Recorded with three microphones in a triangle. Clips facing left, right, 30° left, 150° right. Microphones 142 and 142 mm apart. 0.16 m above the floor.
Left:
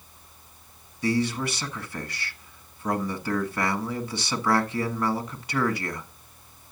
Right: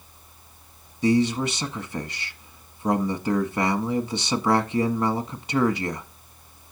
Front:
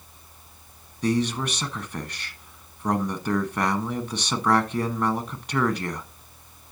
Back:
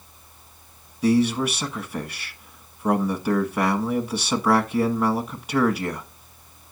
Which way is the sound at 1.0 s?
80° right.